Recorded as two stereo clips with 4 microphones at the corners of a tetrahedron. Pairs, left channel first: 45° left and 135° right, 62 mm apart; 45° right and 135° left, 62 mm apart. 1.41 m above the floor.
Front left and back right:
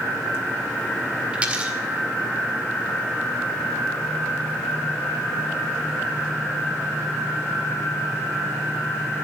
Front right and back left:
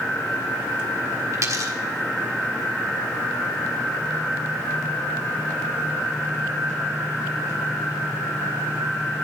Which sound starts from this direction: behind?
A dropped coin, at 1.3 s.